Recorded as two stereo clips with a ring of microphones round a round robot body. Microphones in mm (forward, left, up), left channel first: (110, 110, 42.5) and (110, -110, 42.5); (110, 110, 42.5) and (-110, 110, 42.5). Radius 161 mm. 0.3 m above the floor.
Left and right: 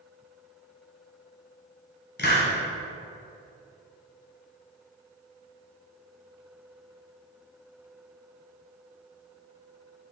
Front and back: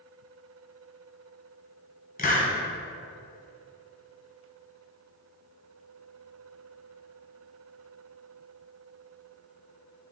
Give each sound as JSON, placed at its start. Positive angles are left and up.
{"t": 2.2, "sound": "a hiss", "azimuth_deg": 50, "distance_m": 1.9}